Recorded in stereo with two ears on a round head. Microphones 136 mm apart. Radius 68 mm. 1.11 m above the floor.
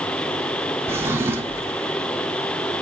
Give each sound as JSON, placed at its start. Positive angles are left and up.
{"t": 0.9, "sound": "a drawer", "side_deg": -15, "distance_m": 1.5}